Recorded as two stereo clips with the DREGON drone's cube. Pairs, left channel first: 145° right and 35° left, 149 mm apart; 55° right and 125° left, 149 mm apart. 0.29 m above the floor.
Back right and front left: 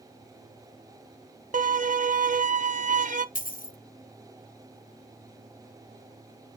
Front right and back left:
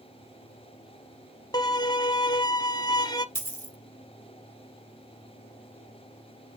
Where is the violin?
5° left, 0.7 m.